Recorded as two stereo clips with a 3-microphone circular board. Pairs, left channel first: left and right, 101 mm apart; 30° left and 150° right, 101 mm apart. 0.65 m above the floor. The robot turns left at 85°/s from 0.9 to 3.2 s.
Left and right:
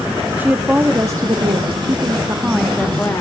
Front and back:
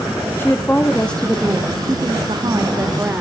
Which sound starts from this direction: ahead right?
A woman speaking, at 0.4 s.